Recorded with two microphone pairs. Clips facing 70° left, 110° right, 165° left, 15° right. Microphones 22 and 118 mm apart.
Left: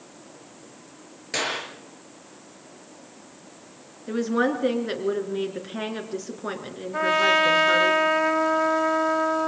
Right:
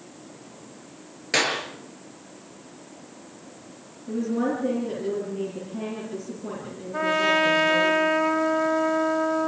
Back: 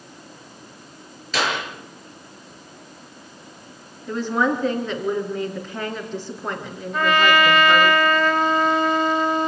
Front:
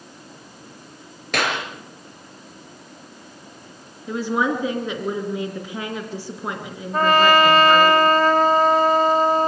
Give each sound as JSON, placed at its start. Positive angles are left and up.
{"t": 1.3, "sound": "a clap", "azimuth_deg": -45, "distance_m": 5.5}
{"t": 4.1, "sound": "a woman speaking", "azimuth_deg": 65, "distance_m": 3.5}
{"t": 6.9, "sound": "a trumpet", "azimuth_deg": 5, "distance_m": 1.6}